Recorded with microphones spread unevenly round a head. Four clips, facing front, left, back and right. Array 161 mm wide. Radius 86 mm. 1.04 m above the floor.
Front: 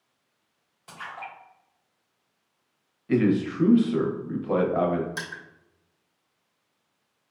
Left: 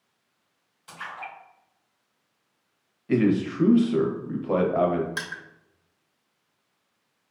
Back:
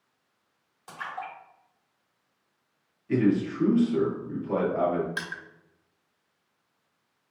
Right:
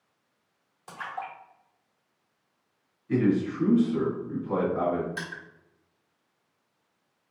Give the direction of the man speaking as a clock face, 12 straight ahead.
10 o'clock.